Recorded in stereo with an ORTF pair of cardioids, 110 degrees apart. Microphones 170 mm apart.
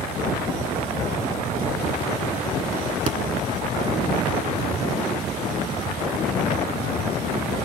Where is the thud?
45° right, 1.8 m.